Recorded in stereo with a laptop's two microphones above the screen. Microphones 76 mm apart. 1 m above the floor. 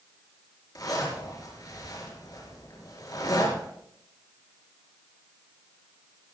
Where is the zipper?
55° left (ahead or behind), 5.5 m.